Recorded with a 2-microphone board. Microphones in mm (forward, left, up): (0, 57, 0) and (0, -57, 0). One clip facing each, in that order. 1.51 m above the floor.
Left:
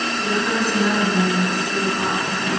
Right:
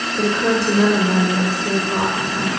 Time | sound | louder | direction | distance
0.2 | a woman speaking | right 5 dB | 75° right (ahead or behind) | 6.5 m